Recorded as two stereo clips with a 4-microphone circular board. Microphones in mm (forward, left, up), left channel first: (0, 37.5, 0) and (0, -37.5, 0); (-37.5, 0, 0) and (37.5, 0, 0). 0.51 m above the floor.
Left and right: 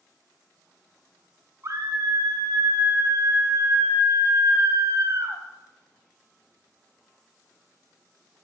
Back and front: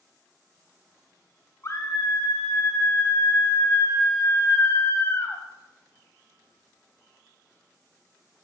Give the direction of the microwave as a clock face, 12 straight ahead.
I don't hear a microwave.